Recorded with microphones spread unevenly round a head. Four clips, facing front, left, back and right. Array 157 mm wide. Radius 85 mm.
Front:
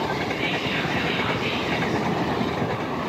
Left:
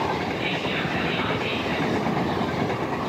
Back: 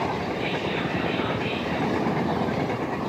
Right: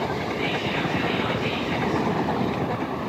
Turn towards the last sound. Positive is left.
turn(degrees=130)